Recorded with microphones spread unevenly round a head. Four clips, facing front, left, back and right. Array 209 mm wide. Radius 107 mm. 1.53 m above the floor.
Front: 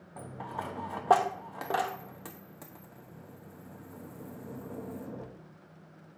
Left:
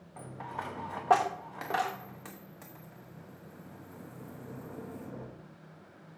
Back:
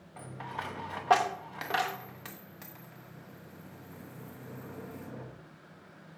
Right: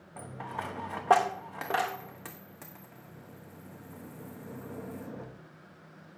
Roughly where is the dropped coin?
Ahead.